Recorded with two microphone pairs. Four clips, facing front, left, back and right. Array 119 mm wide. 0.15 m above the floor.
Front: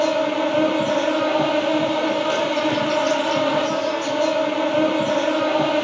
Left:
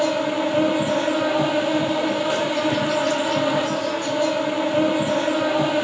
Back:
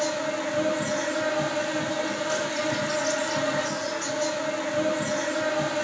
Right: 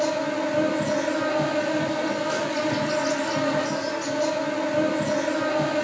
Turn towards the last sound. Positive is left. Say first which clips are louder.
# left 3 dB, front 8 dB
turn(degrees=25)